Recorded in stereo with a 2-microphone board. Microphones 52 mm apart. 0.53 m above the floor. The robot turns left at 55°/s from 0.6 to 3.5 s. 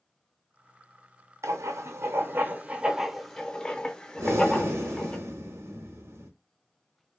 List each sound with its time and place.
1.4 s writing: 75° right (ahead or behind), 0.6 m; by 5.2 s 15° left (ahead or behind), 0.6 m
4.2 s breathing: 65° right (ahead or behind), 0.9 m